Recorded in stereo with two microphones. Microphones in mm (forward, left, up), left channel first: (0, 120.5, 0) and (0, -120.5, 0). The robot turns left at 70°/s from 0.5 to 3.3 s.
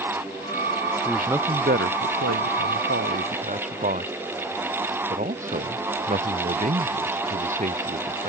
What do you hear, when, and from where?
1.1 s a man speaking: 10° left (ahead or behind); by 8.3 s 30° right (ahead or behind)